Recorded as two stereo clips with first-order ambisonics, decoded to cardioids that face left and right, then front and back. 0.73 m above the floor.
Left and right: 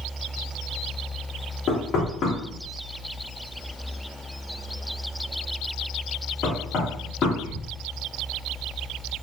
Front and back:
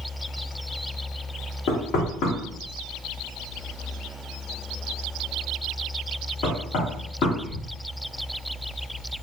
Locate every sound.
1.7 s knocking: 30° left, 1.6 m